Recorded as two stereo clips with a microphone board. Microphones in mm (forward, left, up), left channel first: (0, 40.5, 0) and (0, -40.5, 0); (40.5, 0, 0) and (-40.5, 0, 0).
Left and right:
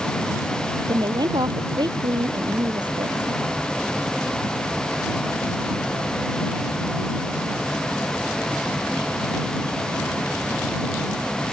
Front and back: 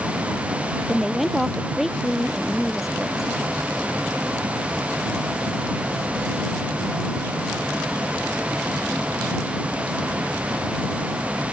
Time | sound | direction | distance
0.9 | a woman speaking | 90° right | ?